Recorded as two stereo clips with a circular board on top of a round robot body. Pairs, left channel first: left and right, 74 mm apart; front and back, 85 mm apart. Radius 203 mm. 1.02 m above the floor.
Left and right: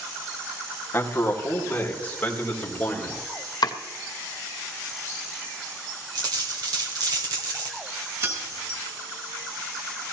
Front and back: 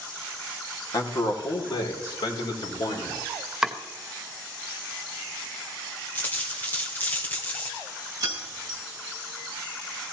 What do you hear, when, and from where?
0.9 s a man speaking: 35° left, 2 m; by 3.2 s 20° left, 4 m
3.6 s chopping: 95° left, 1.5 m
6.2 s a dropped coin: 65° right, 2 m
8.2 s keys jangling: 135° right, 3.5 m